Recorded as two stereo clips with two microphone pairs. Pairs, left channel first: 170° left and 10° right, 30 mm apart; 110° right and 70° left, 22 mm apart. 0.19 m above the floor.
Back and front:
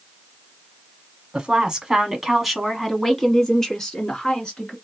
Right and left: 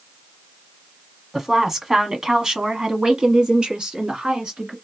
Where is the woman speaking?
10° left, 1.2 m; by 4.8 s 105° left, 1.8 m.